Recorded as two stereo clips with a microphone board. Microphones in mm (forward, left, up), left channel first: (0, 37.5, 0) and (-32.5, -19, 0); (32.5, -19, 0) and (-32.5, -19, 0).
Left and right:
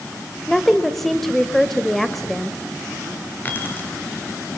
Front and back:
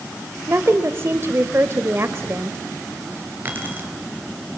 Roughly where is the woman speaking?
Behind left.